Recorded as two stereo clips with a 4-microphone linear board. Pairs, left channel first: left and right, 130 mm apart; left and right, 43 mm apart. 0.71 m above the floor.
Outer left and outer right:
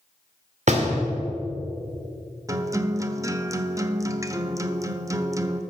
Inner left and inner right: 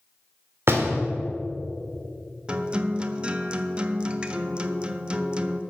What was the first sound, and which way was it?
A door slam, 60° right (ahead or behind).